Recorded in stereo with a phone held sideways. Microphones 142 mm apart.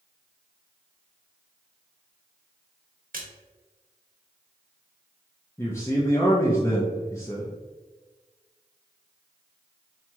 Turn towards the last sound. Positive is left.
turn(degrees=20)  # may be behind; listen again after turning